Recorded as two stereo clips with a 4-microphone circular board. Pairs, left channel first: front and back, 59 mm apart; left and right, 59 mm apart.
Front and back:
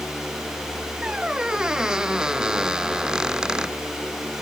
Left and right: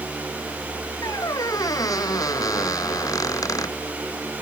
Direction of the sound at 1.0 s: 105° left.